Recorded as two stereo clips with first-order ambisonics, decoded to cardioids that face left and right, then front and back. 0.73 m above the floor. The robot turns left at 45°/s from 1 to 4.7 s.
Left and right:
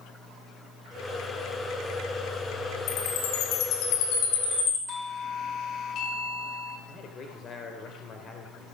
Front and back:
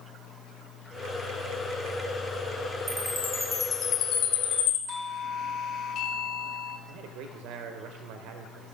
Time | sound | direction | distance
2.9 | a chime | 110° left | 5.5 m
4.9 | a doorbell | 45° left | 2.5 m
6.9 | a man speaking | 150° left | 3 m